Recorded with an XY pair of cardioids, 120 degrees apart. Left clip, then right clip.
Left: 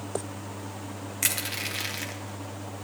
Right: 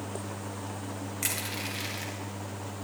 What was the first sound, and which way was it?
Crushing, 35° left.